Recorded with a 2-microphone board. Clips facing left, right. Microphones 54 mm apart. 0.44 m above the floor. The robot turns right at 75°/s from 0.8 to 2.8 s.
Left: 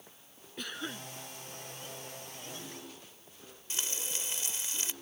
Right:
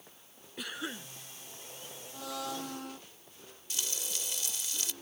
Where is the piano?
I don't hear a piano.